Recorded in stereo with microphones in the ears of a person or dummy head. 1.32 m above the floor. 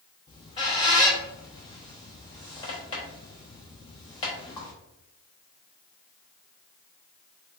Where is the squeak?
20° left (ahead or behind), 0.6 m.